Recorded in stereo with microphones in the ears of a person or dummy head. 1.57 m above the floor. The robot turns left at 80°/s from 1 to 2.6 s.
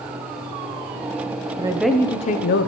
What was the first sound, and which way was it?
A woman speaking, 155° right.